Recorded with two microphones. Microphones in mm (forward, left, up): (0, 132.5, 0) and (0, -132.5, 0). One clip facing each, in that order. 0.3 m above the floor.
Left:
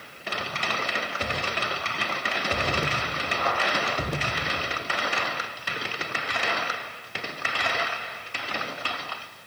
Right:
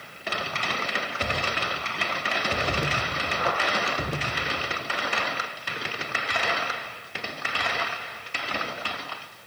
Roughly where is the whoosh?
Right.